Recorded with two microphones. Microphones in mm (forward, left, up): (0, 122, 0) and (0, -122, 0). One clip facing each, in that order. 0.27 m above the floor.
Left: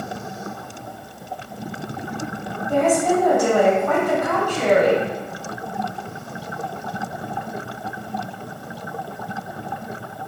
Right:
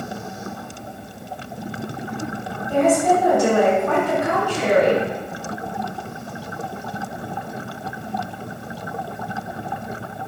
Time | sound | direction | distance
2.7 | a woman speaking | 15° left (ahead or behind) | 1.3 m